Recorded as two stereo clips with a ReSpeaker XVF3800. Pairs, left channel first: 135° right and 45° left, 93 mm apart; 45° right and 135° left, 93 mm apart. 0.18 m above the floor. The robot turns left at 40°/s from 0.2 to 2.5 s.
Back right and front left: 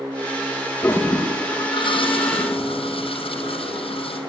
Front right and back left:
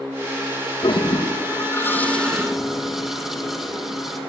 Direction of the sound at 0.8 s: 70° right.